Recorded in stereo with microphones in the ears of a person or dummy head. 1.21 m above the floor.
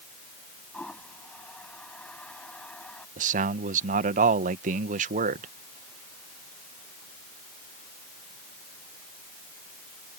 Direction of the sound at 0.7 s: 5° left (ahead or behind).